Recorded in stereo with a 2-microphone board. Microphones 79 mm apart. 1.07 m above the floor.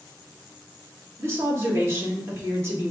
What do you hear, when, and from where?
1.2 s a woman speaking: 35° right (ahead or behind), 1.4 m